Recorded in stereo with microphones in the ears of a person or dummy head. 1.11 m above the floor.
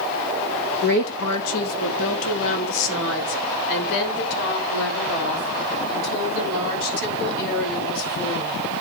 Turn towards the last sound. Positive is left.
turn(degrees=55)  # may be behind; listen again after turning